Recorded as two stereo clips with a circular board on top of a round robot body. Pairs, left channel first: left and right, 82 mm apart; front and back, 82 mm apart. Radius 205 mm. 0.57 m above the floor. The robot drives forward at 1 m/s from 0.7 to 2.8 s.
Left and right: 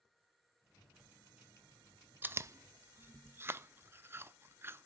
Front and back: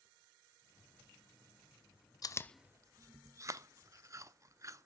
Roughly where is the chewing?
Ahead right.